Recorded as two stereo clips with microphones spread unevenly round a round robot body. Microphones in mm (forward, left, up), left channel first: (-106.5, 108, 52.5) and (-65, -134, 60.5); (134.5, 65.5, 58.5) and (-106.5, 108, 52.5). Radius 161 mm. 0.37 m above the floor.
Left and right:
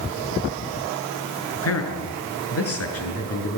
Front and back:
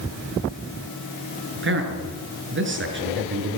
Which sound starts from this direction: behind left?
A man speaking, at 1.6 s.